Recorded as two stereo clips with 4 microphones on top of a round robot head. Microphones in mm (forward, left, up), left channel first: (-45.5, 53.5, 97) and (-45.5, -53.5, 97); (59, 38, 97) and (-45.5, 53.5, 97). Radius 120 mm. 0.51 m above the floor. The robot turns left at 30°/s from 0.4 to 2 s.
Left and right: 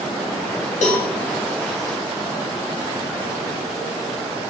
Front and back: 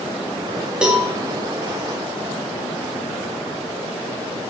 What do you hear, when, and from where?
0.8 s a cowbell: 90° left, 0.5 m; by 1.1 s 85° left, 0.5 m